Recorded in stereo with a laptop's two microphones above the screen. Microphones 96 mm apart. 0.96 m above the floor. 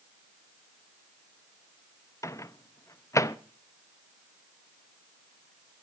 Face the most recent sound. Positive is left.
turn(degrees=30)  # may be behind; listen again after turning